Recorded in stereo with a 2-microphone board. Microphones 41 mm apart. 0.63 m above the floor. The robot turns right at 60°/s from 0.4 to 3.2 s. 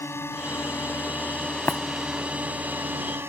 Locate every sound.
0.0 s a drone: 90° left; by 3.3 s 105° right
1.7 s breaking glass: 75° left (ahead or behind); by 1.8 s 70° left (ahead or behind)